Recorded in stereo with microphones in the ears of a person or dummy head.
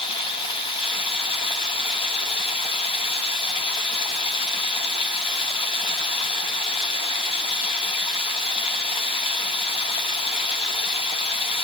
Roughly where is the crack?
No crack in this recording.